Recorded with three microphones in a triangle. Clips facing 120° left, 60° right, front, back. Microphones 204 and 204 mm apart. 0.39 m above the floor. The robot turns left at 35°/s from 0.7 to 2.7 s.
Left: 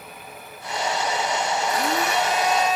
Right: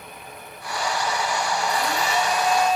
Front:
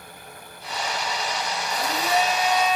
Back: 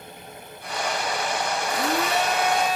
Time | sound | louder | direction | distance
1.7 | a blender | left 1 dB, even | 170° left | 3 m